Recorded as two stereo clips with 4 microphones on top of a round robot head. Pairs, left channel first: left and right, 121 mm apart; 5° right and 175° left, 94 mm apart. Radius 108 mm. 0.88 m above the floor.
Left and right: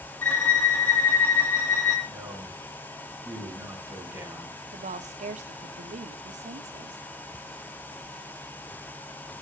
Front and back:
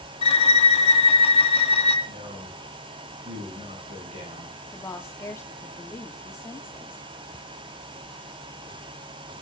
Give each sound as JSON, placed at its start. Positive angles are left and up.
{"t": 0.2, "sound": "a violin", "azimuth_deg": 15, "distance_m": 1.5}
{"t": 2.1, "sound": "a man speaking", "azimuth_deg": -165, "distance_m": 8.5}
{"t": 4.7, "sound": "a woman speaking", "azimuth_deg": -70, "distance_m": 2.0}